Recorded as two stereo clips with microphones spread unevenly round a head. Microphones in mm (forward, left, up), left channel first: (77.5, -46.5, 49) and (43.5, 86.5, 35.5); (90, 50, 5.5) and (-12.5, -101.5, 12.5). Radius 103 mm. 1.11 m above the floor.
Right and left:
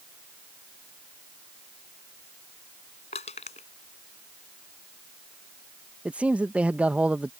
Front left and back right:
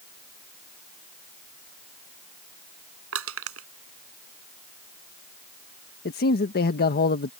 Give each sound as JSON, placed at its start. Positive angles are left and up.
{"t": 3.1, "sound": "crushing", "azimuth_deg": -135}
{"t": 6.0, "sound": "a man speaking", "azimuth_deg": 25}